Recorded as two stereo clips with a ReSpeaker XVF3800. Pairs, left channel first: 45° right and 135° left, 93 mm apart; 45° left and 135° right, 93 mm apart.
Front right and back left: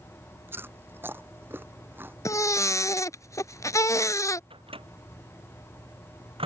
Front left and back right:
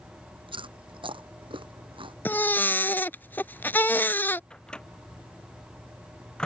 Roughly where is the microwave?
Behind left.